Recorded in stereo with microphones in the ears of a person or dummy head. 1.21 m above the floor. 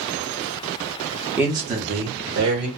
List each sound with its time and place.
1.4 s a man speaking: centre (ahead or behind), 0.7 m; by 2.7 s 65° right (ahead or behind), 1.5 m